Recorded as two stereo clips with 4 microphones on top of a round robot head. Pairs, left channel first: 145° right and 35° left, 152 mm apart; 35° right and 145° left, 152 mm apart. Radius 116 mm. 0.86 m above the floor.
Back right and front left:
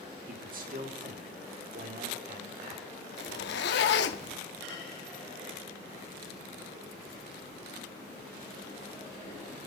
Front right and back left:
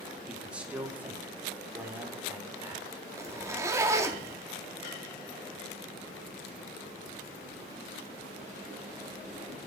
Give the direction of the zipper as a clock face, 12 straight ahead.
5 o'clock.